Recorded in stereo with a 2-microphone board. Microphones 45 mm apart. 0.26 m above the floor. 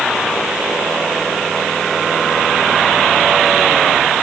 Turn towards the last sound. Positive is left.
No sound to turn to.